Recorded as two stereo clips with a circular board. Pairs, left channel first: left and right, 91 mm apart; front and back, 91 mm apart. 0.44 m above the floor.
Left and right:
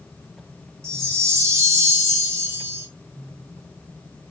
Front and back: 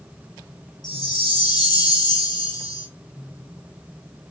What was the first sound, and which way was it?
A chime, 35° right.